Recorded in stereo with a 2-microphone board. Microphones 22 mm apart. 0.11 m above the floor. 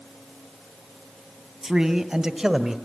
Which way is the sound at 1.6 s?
40° right (ahead or behind).